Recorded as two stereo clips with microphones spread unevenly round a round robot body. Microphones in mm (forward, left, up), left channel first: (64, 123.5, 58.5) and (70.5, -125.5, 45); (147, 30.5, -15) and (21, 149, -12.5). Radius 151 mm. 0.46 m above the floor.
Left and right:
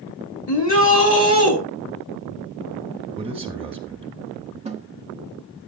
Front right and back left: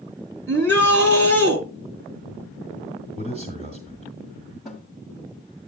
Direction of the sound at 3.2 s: 155° right.